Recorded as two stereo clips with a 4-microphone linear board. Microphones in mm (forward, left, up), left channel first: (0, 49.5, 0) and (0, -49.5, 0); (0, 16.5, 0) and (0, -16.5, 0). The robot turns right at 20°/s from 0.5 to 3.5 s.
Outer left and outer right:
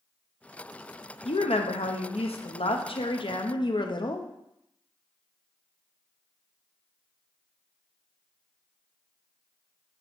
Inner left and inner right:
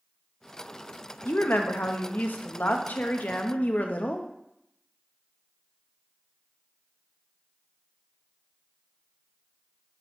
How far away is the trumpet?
No trumpet in this recording.